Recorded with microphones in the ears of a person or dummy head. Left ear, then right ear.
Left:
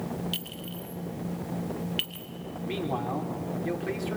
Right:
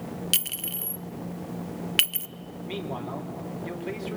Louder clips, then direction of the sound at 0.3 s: Right 6 dB; 60° right (ahead or behind).